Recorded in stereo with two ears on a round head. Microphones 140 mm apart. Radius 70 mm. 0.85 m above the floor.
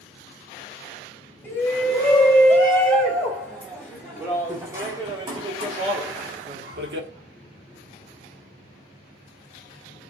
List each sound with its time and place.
1.4 s a shout: 10° left (ahead or behind), 3 m; by 7.1 s 70° right (ahead or behind), 1.4 m